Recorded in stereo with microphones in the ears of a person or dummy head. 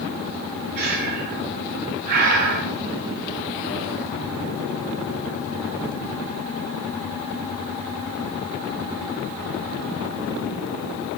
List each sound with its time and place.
0.8 s breathing: 50° right (ahead or behind), 0.7 m